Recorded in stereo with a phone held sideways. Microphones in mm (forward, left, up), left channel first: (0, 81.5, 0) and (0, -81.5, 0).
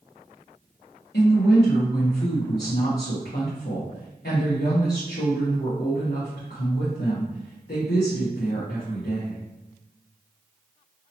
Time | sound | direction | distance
1.1 | a woman speaking | 75° left (ahead or behind) | 0.9 m